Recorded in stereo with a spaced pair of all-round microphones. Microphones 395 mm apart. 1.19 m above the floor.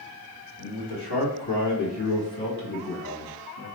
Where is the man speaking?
75° left (ahead or behind), 2.0 m; by 3.7 s 50° left (ahead or behind), 1.1 m.